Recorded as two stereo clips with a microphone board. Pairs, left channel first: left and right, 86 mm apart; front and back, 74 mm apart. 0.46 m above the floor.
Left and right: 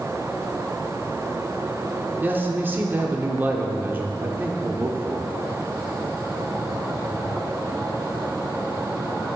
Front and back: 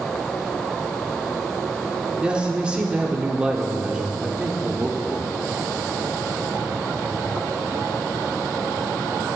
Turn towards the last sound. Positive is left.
turn(degrees=-120)